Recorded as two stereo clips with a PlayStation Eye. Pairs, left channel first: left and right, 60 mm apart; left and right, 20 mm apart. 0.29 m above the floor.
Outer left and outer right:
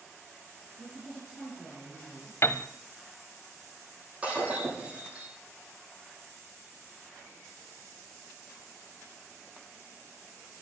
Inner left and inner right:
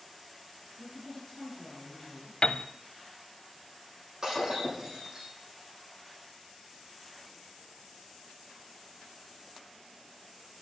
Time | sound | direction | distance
0.8 | a woman speaking | 5° right (ahead or behind) | 6 m
2.4 | a piano | 50° left (ahead or behind) | 0.7 m
4.2 | breaking glass | 25° right (ahead or behind) | 7.5 m